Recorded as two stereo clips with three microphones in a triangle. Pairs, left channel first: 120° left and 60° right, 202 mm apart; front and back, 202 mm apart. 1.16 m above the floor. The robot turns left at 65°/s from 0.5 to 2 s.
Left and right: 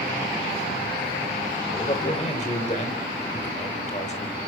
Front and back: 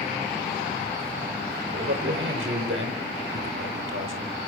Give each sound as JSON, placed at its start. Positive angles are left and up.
{"t": 1.7, "sound": "a man speaking", "azimuth_deg": -170, "distance_m": 3.5}